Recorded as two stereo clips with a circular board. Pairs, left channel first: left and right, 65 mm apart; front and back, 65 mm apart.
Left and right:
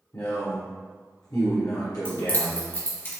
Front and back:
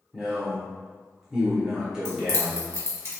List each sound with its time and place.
0.1 s a man speaking: 100° left, 0.9 m
2.0 s keys jangling: 45° left, 1.6 m